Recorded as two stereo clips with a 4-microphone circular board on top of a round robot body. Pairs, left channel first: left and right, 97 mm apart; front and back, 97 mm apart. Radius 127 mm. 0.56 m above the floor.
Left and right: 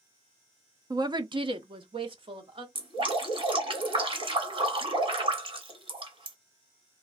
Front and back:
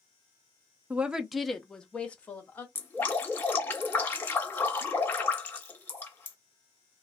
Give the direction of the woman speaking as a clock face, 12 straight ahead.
4 o'clock.